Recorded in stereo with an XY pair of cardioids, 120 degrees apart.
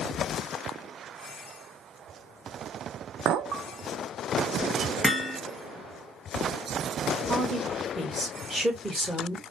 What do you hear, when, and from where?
3.2 s a clink: 65° right, 0.6 m
5.0 s hammering: 10° right, 1.3 m
7.3 s a woman speaking: straight ahead, 1.8 m